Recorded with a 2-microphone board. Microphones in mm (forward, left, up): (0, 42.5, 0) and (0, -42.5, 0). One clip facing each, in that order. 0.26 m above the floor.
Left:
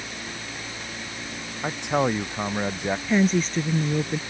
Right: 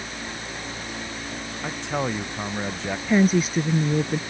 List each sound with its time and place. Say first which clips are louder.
1.6 s a man speaking: left 4 dB; 15° left (ahead or behind)
3.1 s a woman speaking: right 3 dB; 5° right (ahead or behind)